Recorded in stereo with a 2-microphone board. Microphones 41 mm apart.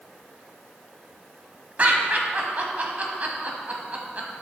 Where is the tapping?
No tapping in this recording.